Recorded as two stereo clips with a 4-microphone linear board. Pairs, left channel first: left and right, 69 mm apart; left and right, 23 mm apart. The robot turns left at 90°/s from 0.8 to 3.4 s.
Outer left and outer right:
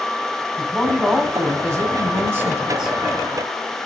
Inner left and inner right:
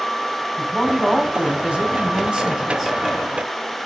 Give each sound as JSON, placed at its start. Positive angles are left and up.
{"t": 0.6, "sound": "a woman speaking", "azimuth_deg": 15, "distance_m": 1.7}